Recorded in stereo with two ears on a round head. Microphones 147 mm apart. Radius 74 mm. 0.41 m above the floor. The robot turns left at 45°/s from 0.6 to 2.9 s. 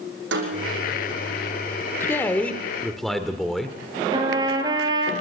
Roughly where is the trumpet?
Right.